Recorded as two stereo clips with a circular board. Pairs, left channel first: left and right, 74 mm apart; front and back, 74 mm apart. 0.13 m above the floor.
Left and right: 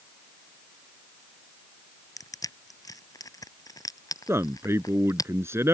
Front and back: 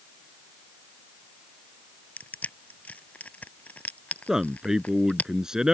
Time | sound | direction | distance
2.2 | crushing | 65° left | ?
4.3 | a man speaking | 105° right | ?